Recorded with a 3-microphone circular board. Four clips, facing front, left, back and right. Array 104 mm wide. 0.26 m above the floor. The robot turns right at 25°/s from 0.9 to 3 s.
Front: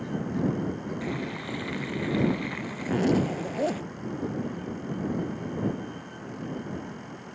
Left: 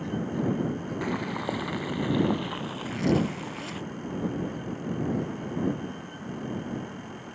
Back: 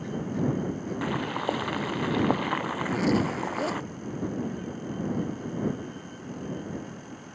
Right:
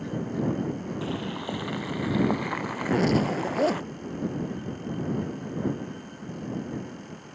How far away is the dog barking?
No dog barking in this recording.